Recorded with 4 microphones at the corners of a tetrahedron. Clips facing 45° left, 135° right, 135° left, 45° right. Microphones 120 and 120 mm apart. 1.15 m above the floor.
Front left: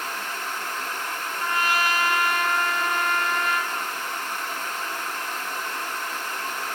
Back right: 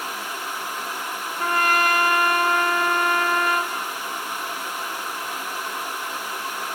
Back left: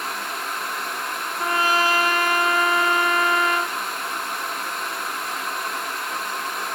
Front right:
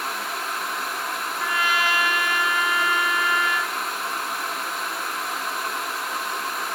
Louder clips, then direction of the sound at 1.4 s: Back right 4 dB, back left 4 dB; 175° right.